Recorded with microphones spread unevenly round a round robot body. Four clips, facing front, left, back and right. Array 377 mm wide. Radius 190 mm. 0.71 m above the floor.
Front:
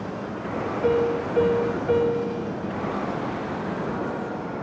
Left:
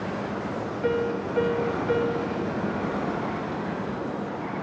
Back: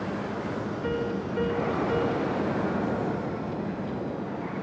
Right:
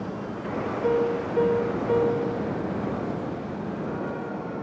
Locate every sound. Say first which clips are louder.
0.8 s a piano: right 2 dB, front 10 dB; 15° left, 1.5 m